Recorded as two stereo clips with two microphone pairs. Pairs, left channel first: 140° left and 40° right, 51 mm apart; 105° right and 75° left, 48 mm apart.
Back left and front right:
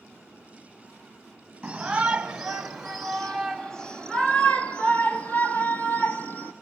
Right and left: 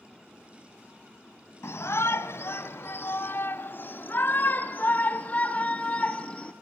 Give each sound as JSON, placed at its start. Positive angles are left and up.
{"t": 1.6, "sound": "a shout", "azimuth_deg": -115, "distance_m": 2.5}